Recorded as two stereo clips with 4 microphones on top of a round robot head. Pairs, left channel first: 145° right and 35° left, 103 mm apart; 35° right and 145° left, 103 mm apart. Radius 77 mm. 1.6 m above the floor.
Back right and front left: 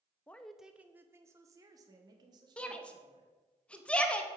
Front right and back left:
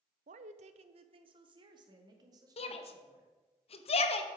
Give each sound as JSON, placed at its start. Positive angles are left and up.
{"t": 0.3, "sound": "a woman speaking", "azimuth_deg": 140, "distance_m": 0.6}
{"t": 2.6, "sound": "a shout", "azimuth_deg": -65, "distance_m": 1.1}